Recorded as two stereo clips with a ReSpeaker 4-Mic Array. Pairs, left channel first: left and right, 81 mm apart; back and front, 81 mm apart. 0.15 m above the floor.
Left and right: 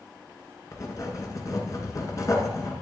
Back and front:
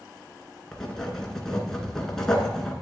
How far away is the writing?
About 2 m.